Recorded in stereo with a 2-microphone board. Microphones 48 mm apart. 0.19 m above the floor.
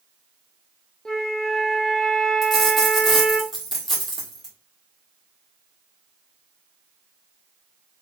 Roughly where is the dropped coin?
Centre.